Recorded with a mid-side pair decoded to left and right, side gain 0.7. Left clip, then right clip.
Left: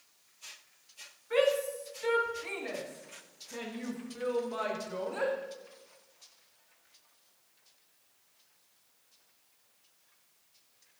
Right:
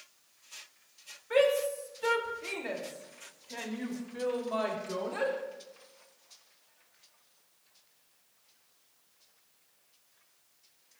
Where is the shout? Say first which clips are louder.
Right 2 dB; 30° right, 5 m; by 5.3 s 75° right, 7 m.